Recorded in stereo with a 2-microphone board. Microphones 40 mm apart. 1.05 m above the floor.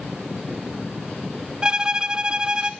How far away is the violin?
About 0.7 m.